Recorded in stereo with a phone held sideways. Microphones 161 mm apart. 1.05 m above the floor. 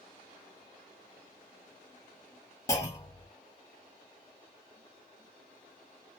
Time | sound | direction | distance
2.7 | a clunk | 20° left (ahead or behind) | 1.1 m